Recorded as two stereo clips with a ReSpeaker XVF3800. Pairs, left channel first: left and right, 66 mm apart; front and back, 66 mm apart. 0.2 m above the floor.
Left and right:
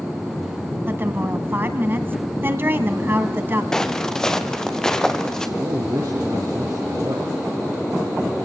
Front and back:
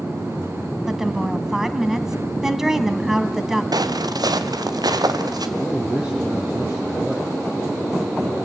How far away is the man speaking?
About 4 m.